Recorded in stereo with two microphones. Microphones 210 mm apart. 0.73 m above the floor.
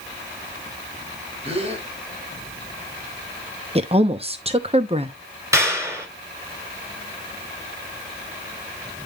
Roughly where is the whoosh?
No whoosh in this recording.